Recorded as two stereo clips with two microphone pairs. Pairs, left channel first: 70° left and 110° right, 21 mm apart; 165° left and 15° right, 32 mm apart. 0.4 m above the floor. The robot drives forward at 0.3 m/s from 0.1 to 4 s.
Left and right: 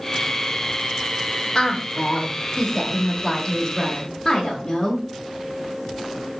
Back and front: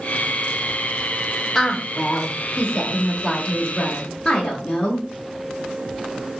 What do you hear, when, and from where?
1.6 s a woman speaking: 95° left, 0.8 m; by 5.0 s 155° left, 1.1 m